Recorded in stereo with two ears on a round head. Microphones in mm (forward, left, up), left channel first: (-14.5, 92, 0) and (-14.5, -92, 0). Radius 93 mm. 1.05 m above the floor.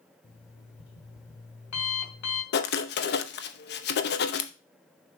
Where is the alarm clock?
80° left, 3 m.